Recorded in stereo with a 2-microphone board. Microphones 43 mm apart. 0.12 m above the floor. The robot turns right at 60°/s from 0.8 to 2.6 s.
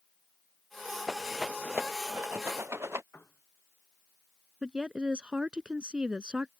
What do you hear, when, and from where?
1.1 s a rattle: 5° left (ahead or behind); by 3.0 s 85° right
3.1 s a piano: 65° left (ahead or behind)
4.6 s a woman speaking: 25° right (ahead or behind)